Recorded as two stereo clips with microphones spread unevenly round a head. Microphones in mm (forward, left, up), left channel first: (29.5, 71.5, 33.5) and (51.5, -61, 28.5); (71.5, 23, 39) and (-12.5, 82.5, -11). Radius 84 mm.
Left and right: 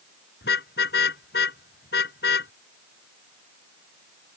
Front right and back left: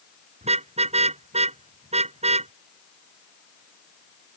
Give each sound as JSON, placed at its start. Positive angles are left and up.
{"t": 0.4, "sound": "a car horn", "azimuth_deg": 120}